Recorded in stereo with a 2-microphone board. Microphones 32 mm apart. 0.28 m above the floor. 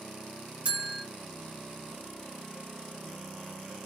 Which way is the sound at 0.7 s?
35° right (ahead or behind).